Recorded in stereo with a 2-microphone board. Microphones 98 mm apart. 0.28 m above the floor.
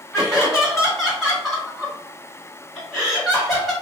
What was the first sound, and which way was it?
Laughter, centre (ahead or behind).